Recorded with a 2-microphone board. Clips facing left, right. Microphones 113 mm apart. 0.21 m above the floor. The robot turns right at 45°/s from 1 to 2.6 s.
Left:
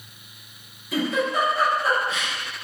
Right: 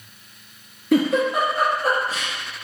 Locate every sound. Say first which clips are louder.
0.9 s a giggle: right 5 dB; 70° right (ahead or behind), 1.3 m; by 2.3 s 30° right (ahead or behind), 1.3 m